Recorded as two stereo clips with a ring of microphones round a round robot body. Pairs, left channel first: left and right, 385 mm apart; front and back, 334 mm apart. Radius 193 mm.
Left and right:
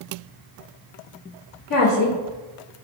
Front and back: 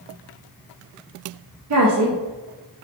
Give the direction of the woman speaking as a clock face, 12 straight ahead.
7 o'clock.